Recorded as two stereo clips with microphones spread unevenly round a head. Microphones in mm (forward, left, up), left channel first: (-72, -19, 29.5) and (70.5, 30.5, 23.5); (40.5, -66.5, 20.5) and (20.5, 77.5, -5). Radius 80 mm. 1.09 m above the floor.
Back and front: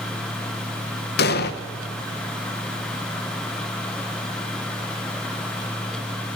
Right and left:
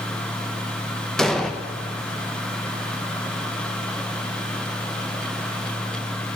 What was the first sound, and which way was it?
An explosion, 175° right.